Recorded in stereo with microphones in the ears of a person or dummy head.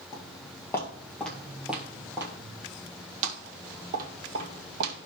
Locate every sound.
0.1 s footsteps: 30° left (ahead or behind), 2.5 m; by 5.1 s 55° right (ahead or behind), 3.5 m